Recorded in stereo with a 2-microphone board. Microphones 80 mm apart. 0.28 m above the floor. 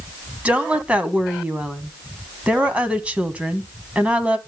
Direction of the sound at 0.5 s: 15° right (ahead or behind).